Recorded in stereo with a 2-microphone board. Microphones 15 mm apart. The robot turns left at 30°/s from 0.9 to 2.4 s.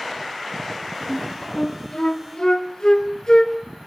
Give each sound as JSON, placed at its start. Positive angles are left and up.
{"t": 1.1, "sound": "a flute", "side_deg": 25, "distance_m": 0.7}